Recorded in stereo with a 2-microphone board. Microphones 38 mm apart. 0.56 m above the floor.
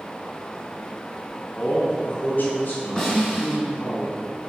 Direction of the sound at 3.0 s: 15° left (ahead or behind).